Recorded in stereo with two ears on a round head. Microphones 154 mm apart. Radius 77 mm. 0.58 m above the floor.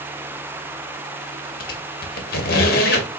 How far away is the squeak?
About 0.8 m.